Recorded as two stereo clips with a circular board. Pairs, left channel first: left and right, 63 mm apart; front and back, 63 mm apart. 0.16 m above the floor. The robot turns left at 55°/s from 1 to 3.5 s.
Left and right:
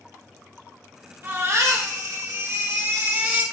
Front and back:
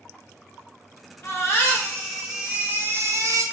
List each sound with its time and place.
1.2 s a baby crying: 40° right, 2.5 m; by 3.4 s 160° right, 2.5 m